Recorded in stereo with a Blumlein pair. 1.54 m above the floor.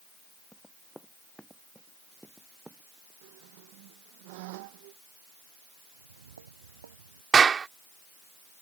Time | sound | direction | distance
0.5 | running footsteps | straight ahead | ?
3.2 | a squeak | 45° right | ?
6.0 | footsteps | 65° right | ?
7.3 | a clap | 20° right | ?